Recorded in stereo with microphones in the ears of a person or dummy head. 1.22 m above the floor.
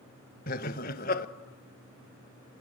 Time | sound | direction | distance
0.5 | laughter | 40° left (ahead or behind) | 1.2 m